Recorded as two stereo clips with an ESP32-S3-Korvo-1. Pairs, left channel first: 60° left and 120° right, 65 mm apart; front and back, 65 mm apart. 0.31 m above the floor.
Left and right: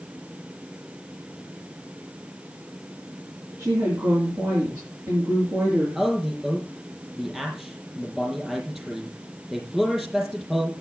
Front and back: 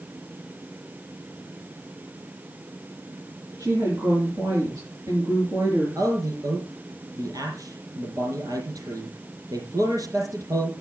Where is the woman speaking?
145° right, 5 m.